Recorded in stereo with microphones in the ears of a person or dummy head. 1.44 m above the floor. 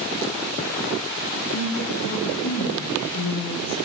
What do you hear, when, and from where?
1.4 s a woman speaking: 75° left (ahead or behind), 9.5 m; by 3.8 s 80° left, 10.5 m